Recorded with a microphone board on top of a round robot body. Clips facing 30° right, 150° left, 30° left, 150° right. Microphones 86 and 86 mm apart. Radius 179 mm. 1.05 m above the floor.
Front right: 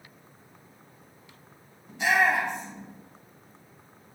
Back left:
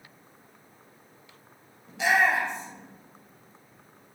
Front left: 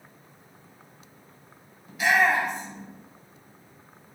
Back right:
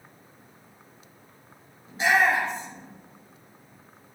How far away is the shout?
About 7 m.